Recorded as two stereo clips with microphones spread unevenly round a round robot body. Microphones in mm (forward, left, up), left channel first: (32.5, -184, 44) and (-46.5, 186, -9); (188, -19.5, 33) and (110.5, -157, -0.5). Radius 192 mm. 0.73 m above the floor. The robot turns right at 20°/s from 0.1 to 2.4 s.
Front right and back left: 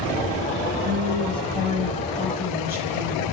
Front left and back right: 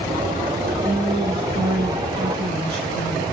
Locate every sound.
0.8 s a woman speaking: 175° left, 5.5 m; by 3.2 s 155° right, 5.5 m